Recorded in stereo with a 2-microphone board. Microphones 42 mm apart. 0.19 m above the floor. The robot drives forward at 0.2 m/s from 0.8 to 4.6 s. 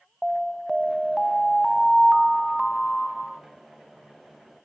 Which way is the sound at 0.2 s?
5° right (ahead or behind).